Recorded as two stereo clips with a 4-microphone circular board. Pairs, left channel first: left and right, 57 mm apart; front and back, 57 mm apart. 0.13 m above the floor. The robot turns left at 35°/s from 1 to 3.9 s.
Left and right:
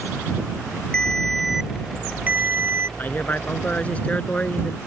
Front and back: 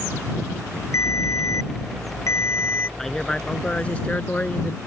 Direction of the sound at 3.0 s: 75° left.